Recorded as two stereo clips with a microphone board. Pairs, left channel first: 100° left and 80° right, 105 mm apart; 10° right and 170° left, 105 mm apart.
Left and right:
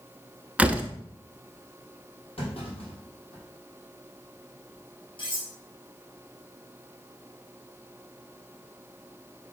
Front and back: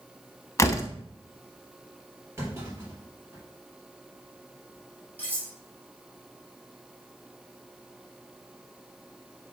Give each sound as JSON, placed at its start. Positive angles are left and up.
{"t": 0.6, "sound": "a door slam", "azimuth_deg": -20, "distance_m": 0.7}
{"t": 2.4, "sound": "a clunk", "azimuth_deg": 105, "distance_m": 3.5}
{"t": 5.2, "sound": "cutlery clinking", "azimuth_deg": 65, "distance_m": 4.0}